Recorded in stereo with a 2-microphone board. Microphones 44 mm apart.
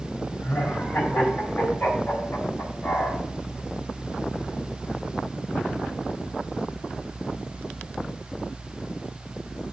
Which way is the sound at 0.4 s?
50° left (ahead or behind).